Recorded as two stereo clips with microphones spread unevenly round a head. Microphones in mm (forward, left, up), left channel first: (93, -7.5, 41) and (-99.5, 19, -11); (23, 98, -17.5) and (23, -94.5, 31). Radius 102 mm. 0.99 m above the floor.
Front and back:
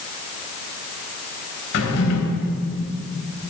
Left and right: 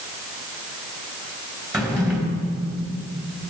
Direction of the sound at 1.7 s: 15° right.